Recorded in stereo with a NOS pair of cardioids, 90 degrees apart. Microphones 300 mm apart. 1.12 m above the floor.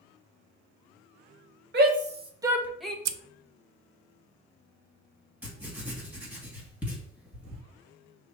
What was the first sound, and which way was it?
A shout, 40° right.